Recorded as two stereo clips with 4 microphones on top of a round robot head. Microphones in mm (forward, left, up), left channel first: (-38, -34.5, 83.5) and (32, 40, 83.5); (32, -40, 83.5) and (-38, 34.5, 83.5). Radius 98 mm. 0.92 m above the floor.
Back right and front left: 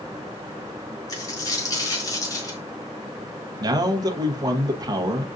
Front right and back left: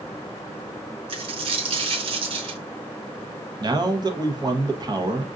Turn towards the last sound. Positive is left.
turn(degrees=90)